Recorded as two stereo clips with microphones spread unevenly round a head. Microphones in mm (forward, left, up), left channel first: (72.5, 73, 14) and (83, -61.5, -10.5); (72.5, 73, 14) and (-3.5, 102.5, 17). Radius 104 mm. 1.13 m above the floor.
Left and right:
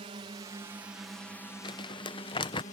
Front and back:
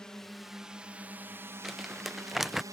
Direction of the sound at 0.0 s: 100° right.